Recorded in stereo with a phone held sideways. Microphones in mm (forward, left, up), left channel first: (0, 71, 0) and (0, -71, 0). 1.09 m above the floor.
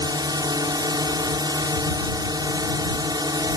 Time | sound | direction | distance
0.0 | a drone | 30° right (ahead or behind) | ?